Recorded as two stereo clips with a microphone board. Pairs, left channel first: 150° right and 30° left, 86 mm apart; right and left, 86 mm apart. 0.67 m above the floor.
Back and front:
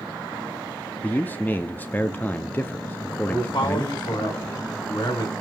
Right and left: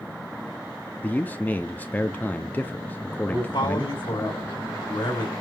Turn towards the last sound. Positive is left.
turn(degrees=-115)